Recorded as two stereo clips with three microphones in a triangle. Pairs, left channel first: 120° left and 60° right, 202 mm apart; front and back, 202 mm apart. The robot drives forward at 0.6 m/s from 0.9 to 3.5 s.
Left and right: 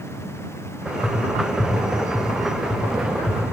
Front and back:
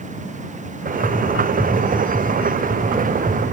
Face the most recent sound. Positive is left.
turn(degrees=125)